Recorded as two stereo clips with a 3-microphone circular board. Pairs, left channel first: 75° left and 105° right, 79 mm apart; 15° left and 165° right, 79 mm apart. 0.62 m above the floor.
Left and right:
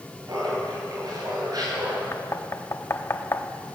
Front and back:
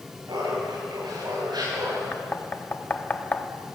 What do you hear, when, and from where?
0.3 s laughter: 140° right, 9.5 m; by 2.0 s 135° right, 8.5 m
2.1 s knocking: 70° left, 1.1 m